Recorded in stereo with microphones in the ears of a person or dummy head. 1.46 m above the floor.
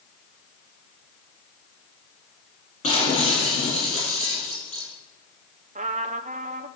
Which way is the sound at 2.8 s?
45° left (ahead or behind).